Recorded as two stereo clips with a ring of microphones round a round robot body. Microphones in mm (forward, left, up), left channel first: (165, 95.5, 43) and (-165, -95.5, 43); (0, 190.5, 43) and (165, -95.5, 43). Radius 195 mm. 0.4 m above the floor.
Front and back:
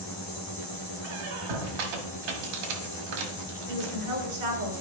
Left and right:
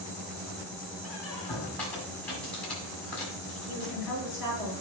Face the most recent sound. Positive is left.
turn(degrees=-145)